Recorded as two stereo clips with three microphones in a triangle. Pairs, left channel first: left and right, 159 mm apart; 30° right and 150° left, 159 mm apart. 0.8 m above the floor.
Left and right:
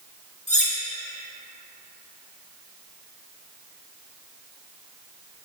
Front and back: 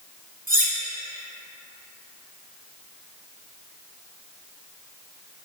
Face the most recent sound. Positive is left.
turn(degrees=130)